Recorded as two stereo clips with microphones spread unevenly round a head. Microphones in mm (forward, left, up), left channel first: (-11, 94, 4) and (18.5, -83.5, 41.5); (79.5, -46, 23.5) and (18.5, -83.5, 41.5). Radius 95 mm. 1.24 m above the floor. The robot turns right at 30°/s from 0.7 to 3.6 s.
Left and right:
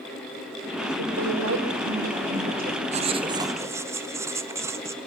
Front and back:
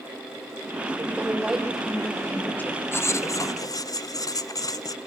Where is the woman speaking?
85° right, 4.5 m; by 3.8 s 5° right, 4.5 m.